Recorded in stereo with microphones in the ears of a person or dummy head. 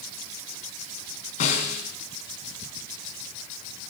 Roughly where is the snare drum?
Left.